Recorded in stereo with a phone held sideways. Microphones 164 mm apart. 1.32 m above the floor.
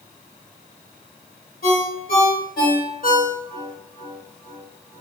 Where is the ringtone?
65° left (ahead or behind), 1.2 m.